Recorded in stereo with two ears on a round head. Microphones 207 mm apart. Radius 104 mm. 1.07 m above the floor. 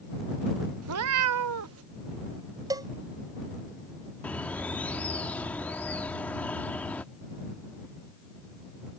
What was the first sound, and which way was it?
A cat meowing, 65° right (ahead or behind).